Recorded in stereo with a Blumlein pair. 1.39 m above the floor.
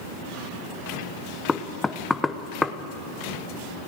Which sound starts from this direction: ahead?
Knocking, at 1.5 s.